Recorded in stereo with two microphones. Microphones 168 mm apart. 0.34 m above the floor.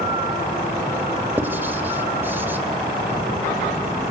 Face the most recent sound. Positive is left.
turn(degrees=-15)  # may be behind; listen again after turning